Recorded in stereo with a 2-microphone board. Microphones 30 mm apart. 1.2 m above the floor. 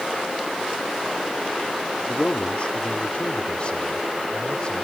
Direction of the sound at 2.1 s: 45° left (ahead or behind).